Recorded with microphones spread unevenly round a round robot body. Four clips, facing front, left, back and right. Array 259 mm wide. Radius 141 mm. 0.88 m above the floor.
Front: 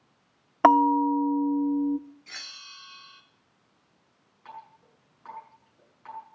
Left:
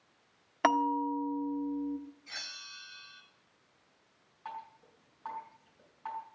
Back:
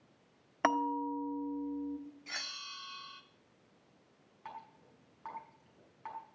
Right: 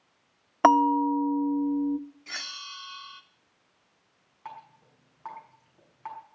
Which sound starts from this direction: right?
A bell, at 2.3 s.